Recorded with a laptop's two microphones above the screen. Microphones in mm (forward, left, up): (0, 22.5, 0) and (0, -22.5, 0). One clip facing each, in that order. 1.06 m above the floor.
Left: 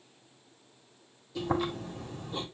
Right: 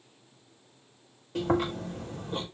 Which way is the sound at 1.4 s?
55° right (ahead or behind).